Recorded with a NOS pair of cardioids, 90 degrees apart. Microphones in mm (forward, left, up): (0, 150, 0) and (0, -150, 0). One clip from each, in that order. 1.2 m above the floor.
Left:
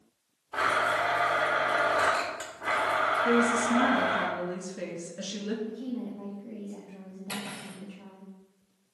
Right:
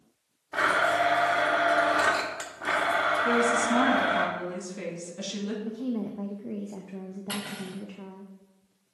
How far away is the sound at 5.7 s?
About 0.8 m.